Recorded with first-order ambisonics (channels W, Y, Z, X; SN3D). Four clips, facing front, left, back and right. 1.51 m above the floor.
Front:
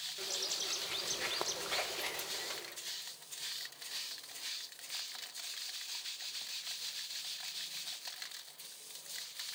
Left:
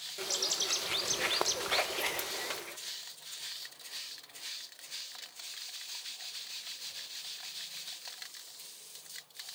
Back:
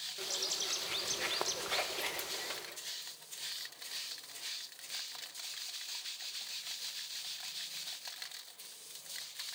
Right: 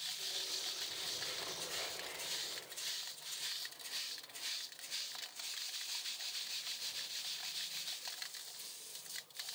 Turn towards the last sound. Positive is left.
turn(degrees=95)